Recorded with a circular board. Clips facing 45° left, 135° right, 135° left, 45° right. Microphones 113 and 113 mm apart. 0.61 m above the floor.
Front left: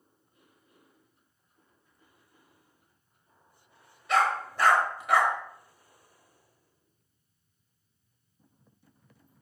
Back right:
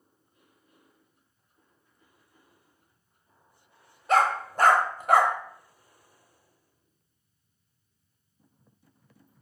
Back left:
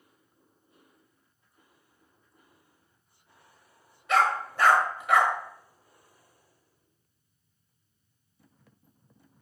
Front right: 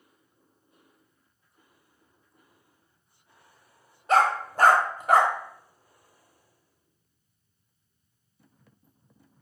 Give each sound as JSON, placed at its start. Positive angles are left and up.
{"t": 4.1, "sound": "a dog barking", "azimuth_deg": -95, "distance_m": 0.7}